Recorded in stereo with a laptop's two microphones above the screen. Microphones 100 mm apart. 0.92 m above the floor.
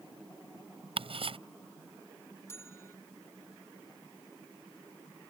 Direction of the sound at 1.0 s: 65° right (ahead or behind).